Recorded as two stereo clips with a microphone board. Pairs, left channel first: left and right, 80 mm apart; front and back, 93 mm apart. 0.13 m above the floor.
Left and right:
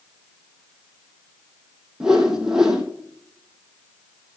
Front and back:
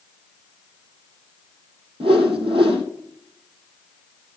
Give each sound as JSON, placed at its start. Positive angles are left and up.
{"t": 2.0, "sound": "a whoosh", "azimuth_deg": -170, "distance_m": 2.5}